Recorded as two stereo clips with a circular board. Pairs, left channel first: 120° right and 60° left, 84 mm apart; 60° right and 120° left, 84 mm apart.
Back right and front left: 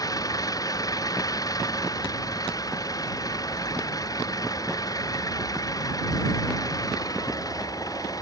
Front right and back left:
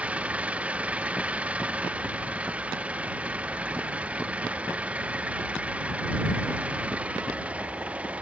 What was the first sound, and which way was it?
An engine running, 165° right.